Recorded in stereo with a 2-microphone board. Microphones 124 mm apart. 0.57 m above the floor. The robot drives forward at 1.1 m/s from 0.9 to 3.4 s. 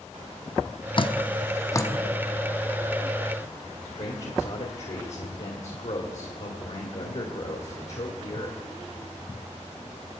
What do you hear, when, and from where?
1.0 s dripping: 40° left (ahead or behind), 0.6 m; by 1.9 s 20° left (ahead or behind), 1.1 m
3.9 s a man speaking: 60° left (ahead or behind), 1.8 m